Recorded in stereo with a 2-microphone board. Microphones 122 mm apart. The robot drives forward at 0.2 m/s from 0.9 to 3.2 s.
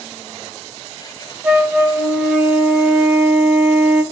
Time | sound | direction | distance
1.4 | a flute | 15° right (ahead or behind) | 0.5 m